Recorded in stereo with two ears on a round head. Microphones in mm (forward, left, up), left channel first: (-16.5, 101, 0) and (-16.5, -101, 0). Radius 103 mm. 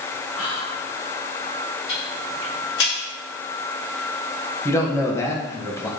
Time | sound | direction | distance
0.3 | whispering | 80° left | 1.8 m
1.9 | ticking | 60° left (ahead or behind) | 3.5 m
4.7 | a man speaking | 15° left (ahead or behind) | 1.4 m